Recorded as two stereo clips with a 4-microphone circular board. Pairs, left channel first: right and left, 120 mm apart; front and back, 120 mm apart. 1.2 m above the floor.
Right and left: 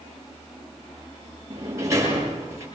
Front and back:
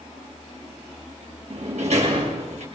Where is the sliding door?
155° left, 6.5 m.